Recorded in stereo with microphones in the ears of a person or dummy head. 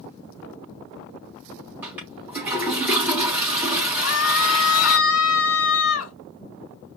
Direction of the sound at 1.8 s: 10° right (ahead or behind).